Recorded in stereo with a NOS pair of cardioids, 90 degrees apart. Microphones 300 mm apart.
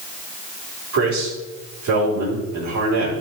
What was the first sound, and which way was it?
A man speaking, 65° right.